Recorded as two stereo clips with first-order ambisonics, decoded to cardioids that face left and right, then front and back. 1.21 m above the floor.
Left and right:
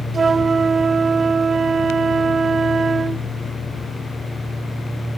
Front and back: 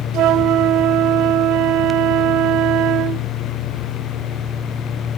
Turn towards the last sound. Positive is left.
turn(degrees=-160)